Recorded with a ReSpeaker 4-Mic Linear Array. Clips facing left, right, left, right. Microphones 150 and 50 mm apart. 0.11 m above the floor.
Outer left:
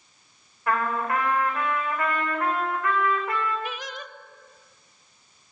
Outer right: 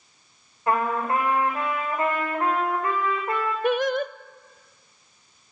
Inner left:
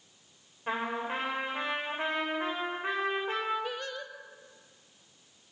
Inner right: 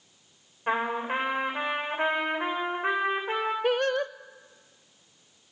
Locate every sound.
0.7 s a trumpet: 25° right (ahead or behind), 8.5 m
3.6 s singing: 55° right (ahead or behind), 0.6 m